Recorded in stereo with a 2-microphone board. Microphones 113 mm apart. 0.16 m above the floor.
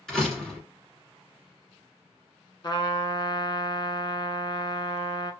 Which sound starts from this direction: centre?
A door slam, at 0.1 s.